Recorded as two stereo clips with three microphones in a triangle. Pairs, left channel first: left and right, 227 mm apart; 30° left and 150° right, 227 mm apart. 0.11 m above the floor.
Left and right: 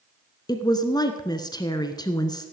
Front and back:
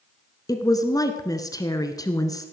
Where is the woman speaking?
65° left, 1.1 m.